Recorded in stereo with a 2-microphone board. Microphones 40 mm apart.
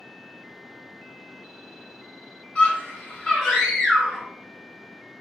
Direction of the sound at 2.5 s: 40° left (ahead or behind).